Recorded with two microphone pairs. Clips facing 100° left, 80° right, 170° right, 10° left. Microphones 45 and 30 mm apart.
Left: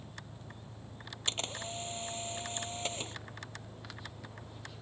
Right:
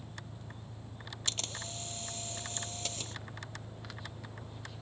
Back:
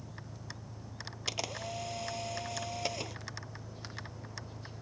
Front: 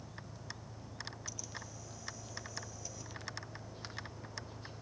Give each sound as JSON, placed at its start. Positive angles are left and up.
{"t": 0.0, "sound": "an engine running", "azimuth_deg": -125}
{"t": 1.3, "sound": "a camera shutter", "azimuth_deg": 165}